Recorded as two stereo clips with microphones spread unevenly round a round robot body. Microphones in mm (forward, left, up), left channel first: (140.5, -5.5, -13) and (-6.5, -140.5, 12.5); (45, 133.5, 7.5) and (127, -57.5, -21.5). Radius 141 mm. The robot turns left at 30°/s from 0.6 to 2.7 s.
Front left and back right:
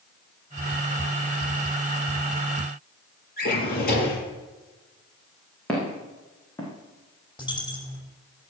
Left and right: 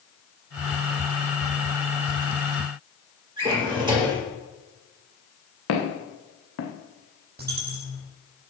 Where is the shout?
No shout in this recording.